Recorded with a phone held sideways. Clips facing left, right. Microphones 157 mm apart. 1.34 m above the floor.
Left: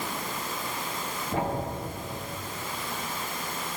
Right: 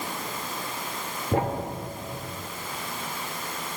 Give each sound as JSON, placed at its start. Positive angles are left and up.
{"t": 1.3, "sound": "a thud", "side_deg": -60, "distance_m": 1.6}